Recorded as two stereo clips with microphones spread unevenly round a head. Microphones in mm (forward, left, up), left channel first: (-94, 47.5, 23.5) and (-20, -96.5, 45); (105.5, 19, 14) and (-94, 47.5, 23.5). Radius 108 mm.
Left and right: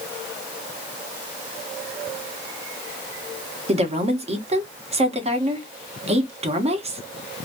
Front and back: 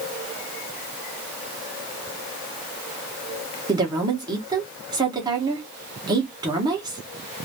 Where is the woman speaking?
115° right, 1.2 m.